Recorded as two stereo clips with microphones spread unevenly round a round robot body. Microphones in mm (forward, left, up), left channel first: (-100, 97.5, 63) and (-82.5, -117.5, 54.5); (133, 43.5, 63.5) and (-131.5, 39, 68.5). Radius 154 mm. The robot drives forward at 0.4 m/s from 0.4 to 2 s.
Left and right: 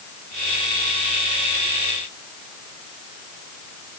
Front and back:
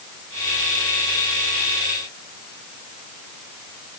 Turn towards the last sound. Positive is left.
No sound to turn to.